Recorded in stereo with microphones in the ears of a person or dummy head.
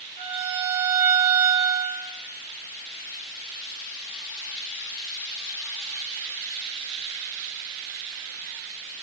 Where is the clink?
No clink in this recording.